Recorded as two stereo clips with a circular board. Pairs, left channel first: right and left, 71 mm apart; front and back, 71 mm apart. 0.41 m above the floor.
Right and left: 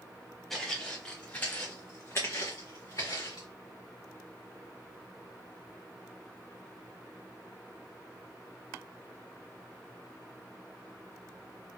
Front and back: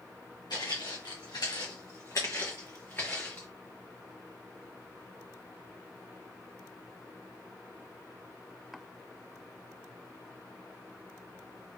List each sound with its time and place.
0.5 s footsteps: 10° right, 1.9 m; by 3.5 s 65° right, 2 m